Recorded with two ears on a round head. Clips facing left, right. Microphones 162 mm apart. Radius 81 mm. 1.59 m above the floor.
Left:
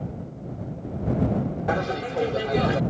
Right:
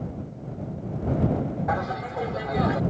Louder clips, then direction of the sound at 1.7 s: Left 2 dB; 40° left (ahead or behind).